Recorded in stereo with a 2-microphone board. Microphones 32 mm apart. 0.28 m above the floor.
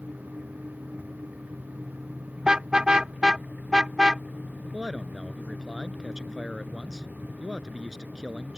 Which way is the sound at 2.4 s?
25° right (ahead or behind).